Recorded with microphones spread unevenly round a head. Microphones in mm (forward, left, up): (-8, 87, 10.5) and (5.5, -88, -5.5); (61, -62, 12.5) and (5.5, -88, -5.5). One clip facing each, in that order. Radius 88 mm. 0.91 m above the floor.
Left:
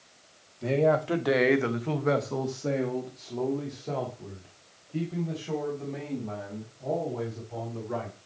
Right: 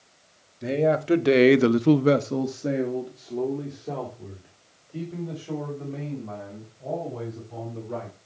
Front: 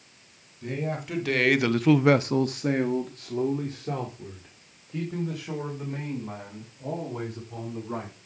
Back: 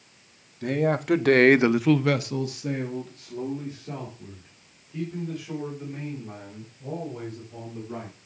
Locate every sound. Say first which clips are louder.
0.6 s a man speaking: right 1 dB, back 7 dB; 155° right, 1.6 m; by 8.2 s straight ahead, 7.5 m